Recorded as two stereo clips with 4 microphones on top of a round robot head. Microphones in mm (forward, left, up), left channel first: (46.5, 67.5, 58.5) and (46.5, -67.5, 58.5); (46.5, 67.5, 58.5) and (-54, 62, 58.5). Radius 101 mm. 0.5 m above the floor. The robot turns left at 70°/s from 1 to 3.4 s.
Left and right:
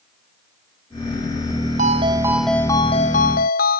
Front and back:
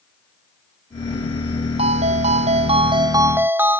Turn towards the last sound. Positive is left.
turn(degrees=115)